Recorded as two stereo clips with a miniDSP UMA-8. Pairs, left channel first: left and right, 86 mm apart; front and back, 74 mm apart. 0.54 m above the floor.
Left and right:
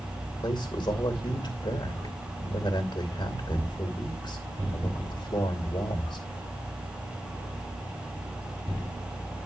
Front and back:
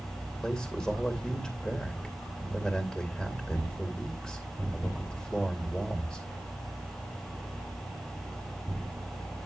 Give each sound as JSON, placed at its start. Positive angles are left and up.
{"t": 0.4, "sound": "a man speaking", "azimuth_deg": 80, "distance_m": 2.5}